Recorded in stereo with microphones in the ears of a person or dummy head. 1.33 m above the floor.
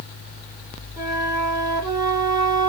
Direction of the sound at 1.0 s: 20° right (ahead or behind).